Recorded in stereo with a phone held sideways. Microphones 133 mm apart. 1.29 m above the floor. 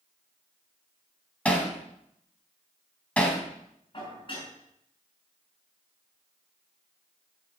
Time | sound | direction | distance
1.4 | hammering | 10° left (ahead or behind) | 3 m
3.9 | dishes clattering | 40° left (ahead or behind) | 7 m